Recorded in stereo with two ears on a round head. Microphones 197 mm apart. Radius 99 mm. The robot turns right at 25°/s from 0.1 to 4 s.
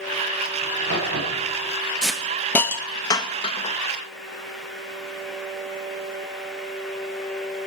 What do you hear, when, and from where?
0.6 s a crack: 55° right (ahead or behind), 4.5 m; by 1.7 s 75° right (ahead or behind), 4.5 m
2.0 s a hiss: 5° right (ahead or behind), 0.9 m; by 3.8 s 30° left (ahead or behind), 0.9 m